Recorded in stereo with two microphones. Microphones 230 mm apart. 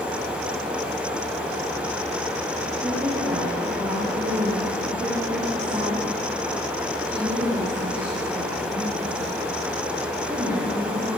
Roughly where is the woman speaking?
Centre.